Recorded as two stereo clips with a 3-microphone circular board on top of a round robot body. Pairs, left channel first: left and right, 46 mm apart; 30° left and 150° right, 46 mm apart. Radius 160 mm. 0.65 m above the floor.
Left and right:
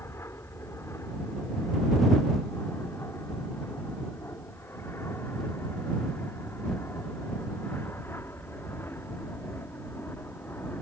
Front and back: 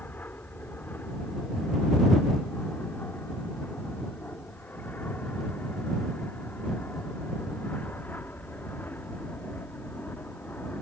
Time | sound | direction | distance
0.0 | an aircraft | 80° left | ?